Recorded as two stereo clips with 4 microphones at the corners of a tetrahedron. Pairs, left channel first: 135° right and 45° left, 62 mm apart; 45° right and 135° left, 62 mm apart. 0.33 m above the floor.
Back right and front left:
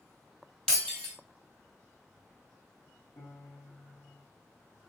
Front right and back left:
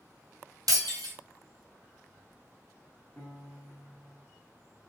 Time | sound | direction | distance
0.7 | breaking glass | 145° left | 1.7 m
3.2 | a piano | 125° right | 1.0 m